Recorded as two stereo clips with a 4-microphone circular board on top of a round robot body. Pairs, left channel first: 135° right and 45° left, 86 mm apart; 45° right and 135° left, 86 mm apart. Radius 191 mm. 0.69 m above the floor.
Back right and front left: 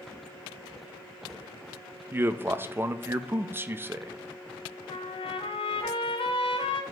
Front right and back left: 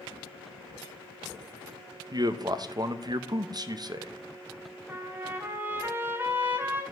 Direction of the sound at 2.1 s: 105° left.